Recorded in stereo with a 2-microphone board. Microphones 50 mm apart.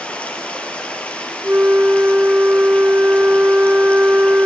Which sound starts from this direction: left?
Running water, at 0.0 s.